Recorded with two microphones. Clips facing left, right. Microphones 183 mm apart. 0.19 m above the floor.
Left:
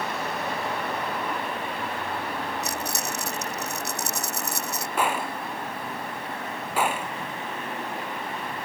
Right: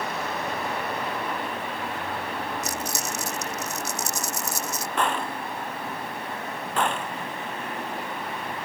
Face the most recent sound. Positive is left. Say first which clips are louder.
# even
turn(degrees=5)  # may be behind; listen again after turning